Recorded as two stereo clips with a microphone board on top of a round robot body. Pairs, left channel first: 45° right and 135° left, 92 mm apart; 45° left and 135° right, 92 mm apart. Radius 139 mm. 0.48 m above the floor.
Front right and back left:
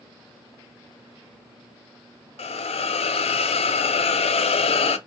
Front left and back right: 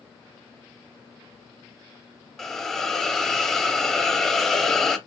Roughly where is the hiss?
Ahead right.